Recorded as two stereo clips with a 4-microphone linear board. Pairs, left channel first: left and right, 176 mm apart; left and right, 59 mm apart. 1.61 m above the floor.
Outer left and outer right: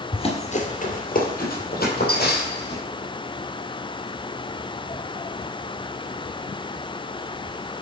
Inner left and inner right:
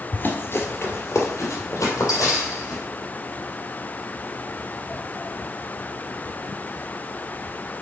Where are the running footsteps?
30° left (ahead or behind), 1.8 m; by 2.8 s 65° left (ahead or behind), 4.5 m.